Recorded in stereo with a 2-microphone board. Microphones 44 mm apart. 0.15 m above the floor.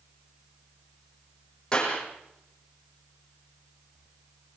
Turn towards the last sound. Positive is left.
turn(degrees=20)  # may be behind; listen again after turning